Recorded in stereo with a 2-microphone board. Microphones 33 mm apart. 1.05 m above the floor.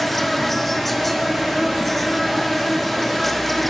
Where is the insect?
5° left (ahead or behind), 0.8 m.